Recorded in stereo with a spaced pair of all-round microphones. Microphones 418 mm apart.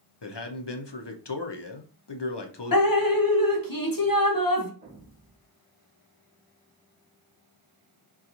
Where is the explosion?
25° left (ahead or behind), 2 m.